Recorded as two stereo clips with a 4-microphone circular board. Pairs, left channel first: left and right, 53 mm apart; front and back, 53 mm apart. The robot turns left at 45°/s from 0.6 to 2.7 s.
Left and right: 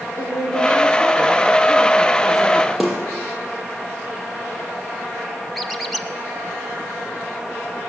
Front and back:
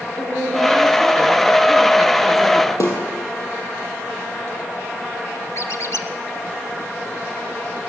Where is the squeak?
Straight ahead, 1.6 m.